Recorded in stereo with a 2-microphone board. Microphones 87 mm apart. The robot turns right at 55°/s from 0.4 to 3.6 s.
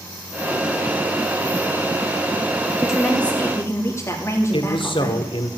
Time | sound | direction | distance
2.8 | a woman speaking | 10° right | 3 m
4.5 | a man speaking | 80° left | 1.5 m